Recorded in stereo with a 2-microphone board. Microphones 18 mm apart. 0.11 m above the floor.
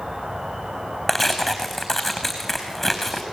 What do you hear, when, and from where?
0.0 s an insect: 40° right (ahead or behind), 3.5 m
1.1 s tearing paper: 5° left (ahead or behind), 4 m